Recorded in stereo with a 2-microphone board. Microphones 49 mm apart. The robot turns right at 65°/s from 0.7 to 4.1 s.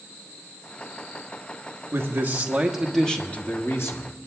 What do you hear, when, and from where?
1.9 s a man speaking: 60° right, 1.4 m; by 4.1 s 80° left, 1.4 m